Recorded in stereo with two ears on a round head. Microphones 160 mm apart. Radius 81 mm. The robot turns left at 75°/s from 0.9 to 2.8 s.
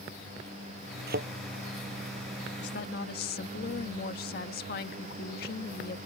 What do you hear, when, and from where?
1.1 s a thud: 65° right (ahead or behind); by 1.3 s 50° right (ahead or behind)
2.6 s a woman speaking: 65° left (ahead or behind); by 6.0 s 55° left (ahead or behind)